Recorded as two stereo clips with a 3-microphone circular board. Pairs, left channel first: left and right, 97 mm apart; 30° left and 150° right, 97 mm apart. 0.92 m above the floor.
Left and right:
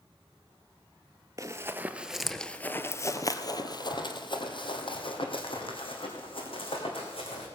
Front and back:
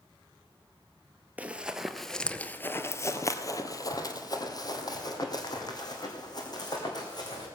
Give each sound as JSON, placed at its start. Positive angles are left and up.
{"t": 1.4, "sound": "running footsteps", "azimuth_deg": -85, "distance_m": 1.0}